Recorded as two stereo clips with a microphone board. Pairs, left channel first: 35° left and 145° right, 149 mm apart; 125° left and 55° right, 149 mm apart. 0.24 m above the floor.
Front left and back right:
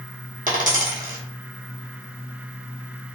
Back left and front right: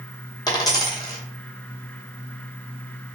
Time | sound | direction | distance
0.5 | a dropped coin | 170° right | 1.2 m